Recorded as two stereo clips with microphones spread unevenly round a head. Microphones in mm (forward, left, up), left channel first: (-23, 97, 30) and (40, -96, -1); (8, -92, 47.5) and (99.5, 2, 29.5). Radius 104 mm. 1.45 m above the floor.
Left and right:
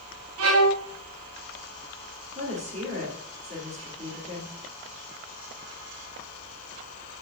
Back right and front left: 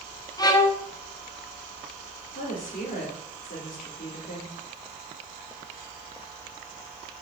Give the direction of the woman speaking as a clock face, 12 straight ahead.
4 o'clock.